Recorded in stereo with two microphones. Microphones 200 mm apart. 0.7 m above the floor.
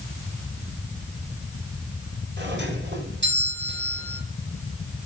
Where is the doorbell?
65° right (ahead or behind), 4 m.